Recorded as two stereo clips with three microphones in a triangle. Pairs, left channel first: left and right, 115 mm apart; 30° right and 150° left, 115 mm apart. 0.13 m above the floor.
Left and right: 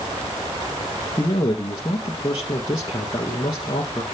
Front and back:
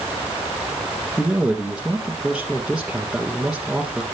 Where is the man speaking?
65° left, 1.8 m.